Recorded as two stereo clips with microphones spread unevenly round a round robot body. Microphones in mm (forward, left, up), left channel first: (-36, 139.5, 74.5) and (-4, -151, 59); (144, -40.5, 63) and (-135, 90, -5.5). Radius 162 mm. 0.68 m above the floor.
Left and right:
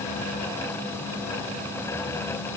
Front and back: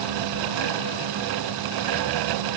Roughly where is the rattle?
No rattle in this recording.